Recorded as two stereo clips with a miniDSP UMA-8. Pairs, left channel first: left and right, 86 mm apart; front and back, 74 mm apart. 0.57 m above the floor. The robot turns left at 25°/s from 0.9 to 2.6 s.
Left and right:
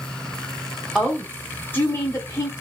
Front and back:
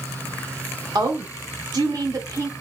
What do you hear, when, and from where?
0.9 s a woman speaking: straight behind, 1.9 m; by 2.5 s 140° left, 1.9 m